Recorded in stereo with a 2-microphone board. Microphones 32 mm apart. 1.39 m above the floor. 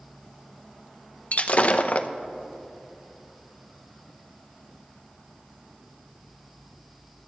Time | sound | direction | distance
1.3 | breaking glass | 45° left (ahead or behind) | 0.6 m